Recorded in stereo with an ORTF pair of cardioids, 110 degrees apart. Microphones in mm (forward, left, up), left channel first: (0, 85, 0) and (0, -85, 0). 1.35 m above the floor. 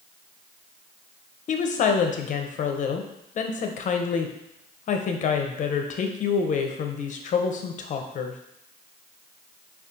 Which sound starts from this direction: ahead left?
A woman speaking, at 1.5 s.